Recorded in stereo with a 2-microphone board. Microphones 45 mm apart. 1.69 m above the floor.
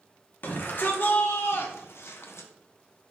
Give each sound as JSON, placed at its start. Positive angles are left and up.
{"t": 0.4, "sound": "a shout", "side_deg": 50, "distance_m": 1.8}